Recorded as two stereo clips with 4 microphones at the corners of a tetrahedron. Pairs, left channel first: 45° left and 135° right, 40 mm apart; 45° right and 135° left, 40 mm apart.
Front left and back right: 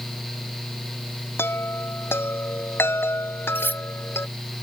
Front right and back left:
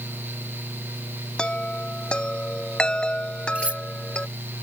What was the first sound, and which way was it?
A chime, 25° left.